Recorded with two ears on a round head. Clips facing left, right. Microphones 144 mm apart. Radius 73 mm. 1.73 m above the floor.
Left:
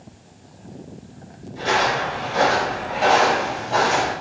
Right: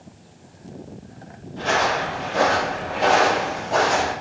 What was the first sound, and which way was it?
Footsteps, 20° left (ahead or behind).